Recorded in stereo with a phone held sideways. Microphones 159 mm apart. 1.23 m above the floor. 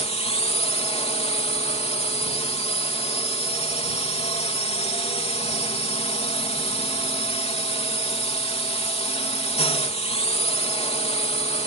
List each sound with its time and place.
0.0 s a drone: 40° left (ahead or behind)